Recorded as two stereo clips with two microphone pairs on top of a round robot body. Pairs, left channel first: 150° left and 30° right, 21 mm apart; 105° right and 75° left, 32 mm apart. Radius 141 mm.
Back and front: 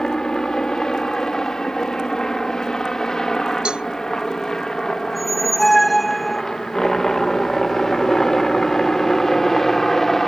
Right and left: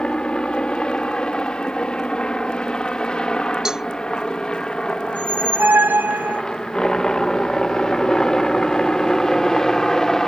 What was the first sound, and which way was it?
A helicopter, 160° right.